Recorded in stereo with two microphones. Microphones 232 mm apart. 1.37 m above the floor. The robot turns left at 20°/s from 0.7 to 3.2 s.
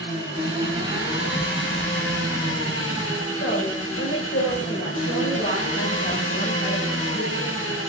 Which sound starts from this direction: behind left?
An engine running, at 0.0 s.